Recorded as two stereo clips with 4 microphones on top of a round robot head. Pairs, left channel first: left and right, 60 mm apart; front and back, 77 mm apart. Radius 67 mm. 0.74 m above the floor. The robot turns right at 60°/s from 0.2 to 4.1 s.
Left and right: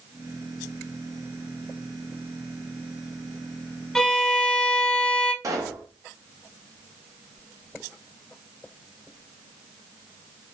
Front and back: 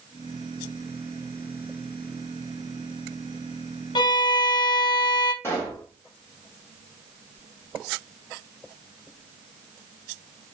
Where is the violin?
5° left, 0.7 m; by 5.3 s 15° left, 0.7 m.